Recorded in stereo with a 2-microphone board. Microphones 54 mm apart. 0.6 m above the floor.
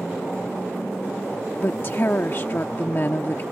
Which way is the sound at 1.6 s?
40° left (ahead or behind).